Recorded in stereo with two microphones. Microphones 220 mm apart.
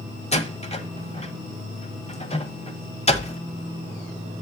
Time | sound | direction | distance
0.3 | a door slam | 30° left (ahead or behind) | 1.1 m